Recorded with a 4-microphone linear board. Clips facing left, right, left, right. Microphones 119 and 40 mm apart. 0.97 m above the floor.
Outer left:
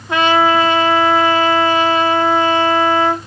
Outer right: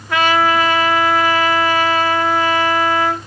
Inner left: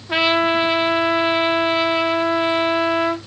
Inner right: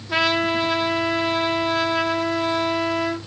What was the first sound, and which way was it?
A trumpet, 25° left (ahead or behind).